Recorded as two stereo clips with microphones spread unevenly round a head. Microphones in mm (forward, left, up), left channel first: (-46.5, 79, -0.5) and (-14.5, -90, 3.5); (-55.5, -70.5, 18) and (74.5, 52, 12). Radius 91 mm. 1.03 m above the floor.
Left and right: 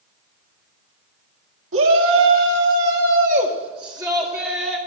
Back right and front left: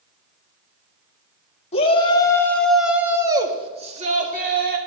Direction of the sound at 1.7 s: 80° right.